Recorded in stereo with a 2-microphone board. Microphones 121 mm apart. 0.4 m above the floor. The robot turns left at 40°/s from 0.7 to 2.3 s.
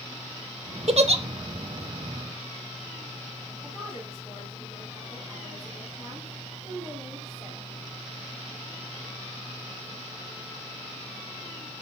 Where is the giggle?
55° right (ahead or behind), 0.9 m; by 1.2 s 50° right (ahead or behind), 0.9 m.